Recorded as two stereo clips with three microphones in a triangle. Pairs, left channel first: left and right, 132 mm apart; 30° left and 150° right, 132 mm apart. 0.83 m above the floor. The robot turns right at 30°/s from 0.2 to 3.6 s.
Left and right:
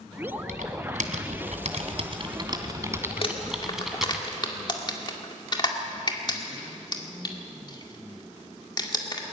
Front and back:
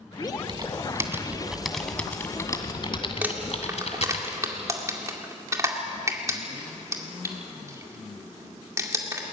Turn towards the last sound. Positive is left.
turn(degrees=145)